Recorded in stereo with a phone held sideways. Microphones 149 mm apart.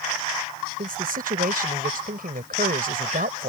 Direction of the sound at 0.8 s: 80° right.